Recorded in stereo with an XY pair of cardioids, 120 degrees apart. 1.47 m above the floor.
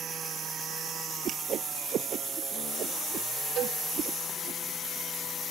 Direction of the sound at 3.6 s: 60° right.